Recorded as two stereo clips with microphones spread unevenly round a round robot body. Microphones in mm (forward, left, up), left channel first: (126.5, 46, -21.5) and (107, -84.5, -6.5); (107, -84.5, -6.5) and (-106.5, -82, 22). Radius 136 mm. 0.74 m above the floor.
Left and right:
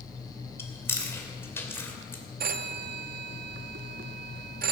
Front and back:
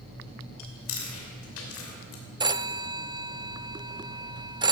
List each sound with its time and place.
0.6 s chewing: 10° left, 2.5 m
2.4 s a phone ringing: 105° right, 0.6 m